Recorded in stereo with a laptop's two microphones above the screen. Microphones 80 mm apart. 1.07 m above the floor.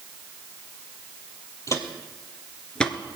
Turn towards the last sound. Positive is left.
turn(degrees=5)  # may be behind; listen again after turning